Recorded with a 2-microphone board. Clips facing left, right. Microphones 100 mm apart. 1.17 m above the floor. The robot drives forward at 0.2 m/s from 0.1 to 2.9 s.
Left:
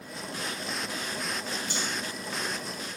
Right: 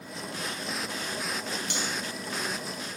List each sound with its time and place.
1.7 s cutlery clinking: 70° right (ahead or behind), 0.6 m